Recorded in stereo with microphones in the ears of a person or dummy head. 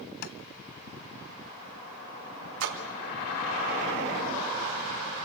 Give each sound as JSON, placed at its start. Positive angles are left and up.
{"t": 0.2, "sound": "tapping", "side_deg": 50, "distance_m": 0.7}
{"t": 2.6, "sound": "a splash", "side_deg": -75, "distance_m": 2.5}